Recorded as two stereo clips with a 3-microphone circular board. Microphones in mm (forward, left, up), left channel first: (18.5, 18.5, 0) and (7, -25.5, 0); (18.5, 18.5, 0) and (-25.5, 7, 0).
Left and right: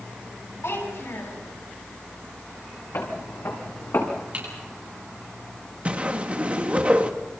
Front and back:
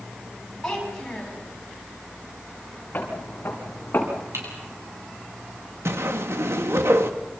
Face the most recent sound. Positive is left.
turn(degrees=-165)